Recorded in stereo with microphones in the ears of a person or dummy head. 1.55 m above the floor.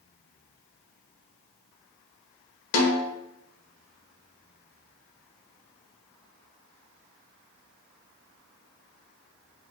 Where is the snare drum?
70° left (ahead or behind), 0.9 m.